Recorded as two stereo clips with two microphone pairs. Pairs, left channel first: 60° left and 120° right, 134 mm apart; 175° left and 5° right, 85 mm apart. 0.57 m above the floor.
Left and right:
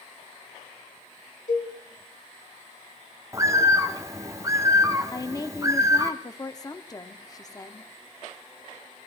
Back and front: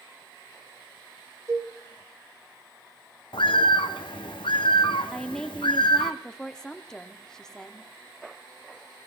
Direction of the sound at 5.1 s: 100° left.